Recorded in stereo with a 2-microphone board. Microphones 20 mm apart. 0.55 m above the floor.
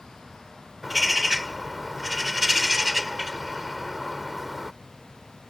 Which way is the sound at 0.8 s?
10° right (ahead or behind).